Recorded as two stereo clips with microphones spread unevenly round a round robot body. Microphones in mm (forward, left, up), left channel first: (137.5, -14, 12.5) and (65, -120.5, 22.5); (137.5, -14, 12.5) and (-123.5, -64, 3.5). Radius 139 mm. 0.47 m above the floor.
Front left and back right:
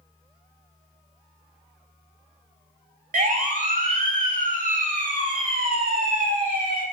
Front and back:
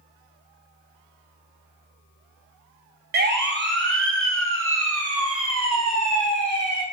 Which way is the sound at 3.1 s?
120° right.